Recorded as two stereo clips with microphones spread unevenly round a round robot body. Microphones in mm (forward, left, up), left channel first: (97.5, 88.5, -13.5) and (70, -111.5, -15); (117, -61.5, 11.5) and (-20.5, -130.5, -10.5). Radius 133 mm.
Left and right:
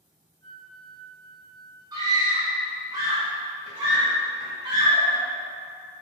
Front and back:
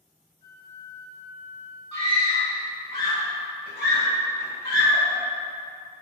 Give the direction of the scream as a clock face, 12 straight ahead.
1 o'clock.